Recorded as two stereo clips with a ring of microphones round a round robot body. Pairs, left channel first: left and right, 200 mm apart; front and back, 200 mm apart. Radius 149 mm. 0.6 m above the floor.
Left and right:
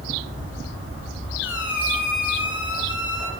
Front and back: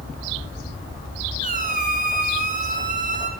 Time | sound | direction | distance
1.4 | a squeak | 130° left | 2 m